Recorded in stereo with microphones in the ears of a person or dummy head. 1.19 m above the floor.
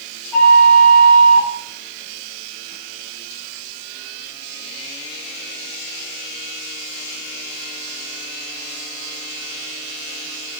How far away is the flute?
About 0.5 m.